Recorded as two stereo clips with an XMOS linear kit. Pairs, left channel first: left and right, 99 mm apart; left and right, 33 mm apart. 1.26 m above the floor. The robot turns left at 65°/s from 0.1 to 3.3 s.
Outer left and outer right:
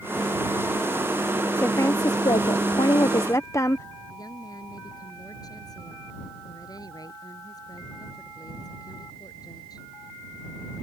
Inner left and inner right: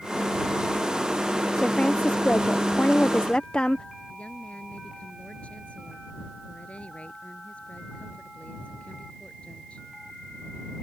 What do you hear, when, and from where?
1.6 s a woman speaking: 155° left; by 3.9 s 40° left
4.1 s a woman speaking: 40° left (ahead or behind)